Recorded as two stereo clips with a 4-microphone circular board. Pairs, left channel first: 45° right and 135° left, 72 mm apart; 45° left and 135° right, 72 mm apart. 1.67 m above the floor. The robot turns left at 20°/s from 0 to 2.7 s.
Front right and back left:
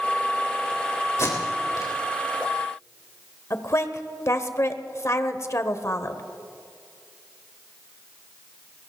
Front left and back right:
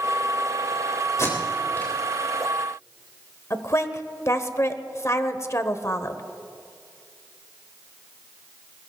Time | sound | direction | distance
1.2 | tape being pulled | straight ahead | 3.5 m
3.5 | a woman speaking | straight ahead | 1.1 m